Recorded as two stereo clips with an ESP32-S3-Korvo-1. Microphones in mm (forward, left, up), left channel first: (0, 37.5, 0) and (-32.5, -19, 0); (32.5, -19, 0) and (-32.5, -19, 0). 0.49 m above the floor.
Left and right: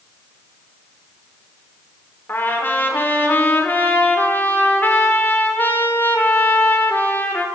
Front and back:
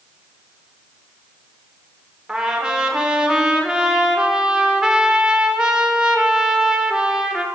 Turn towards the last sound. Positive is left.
turn(degrees=105)